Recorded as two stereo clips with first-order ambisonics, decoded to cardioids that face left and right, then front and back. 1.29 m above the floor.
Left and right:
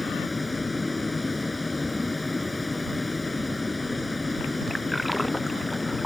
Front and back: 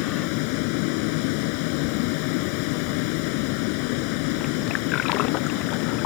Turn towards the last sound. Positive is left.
turn(degrees=5)